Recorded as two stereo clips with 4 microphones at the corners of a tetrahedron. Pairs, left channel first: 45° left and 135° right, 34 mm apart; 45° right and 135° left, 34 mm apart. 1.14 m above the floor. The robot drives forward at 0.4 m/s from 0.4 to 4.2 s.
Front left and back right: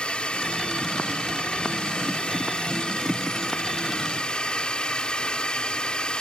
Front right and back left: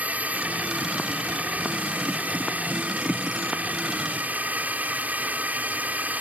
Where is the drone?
105° left; by 6.2 s 110° left.